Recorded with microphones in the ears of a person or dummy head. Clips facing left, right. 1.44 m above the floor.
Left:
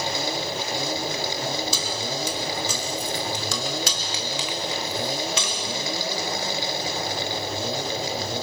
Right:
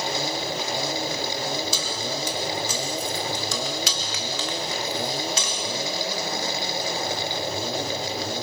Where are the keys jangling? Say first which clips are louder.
Even; 75° left (ahead or behind), 3 m; by 5.6 s 40° right (ahead or behind), 1.5 m.